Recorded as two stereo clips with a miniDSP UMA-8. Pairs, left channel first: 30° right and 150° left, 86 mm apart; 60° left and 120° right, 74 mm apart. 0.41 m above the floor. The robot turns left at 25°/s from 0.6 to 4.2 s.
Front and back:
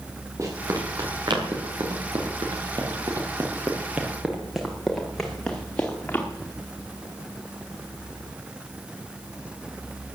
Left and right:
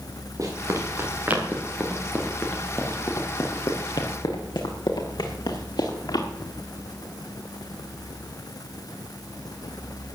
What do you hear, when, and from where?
0.4 s running footsteps: 160° right, 5.5 m; by 6.3 s 40° left, 4.5 m